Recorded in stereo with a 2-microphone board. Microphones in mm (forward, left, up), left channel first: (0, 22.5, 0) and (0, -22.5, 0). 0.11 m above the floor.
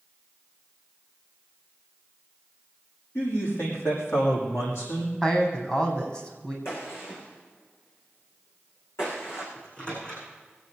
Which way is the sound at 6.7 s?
70° left (ahead or behind).